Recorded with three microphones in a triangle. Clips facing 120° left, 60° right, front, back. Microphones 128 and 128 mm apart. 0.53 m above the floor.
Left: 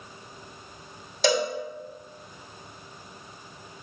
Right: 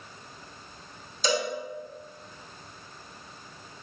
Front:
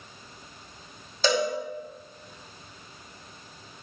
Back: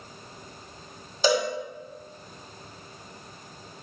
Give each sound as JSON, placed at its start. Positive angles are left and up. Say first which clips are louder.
{"t": 1.2, "sound": "a cowbell", "louder": "left 4 dB, back 1 dB", "azimuth_deg": 100, "distance_m": 2.0}